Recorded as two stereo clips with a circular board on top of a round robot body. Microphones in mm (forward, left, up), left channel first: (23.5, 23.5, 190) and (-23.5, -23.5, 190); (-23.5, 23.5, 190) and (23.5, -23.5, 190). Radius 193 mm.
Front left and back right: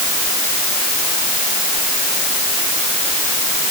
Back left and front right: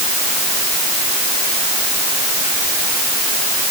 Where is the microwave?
No microwave in this recording.